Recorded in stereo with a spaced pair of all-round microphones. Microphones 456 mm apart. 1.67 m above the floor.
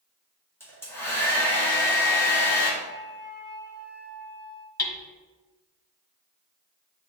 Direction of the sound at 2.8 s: 25° right (ahead or behind).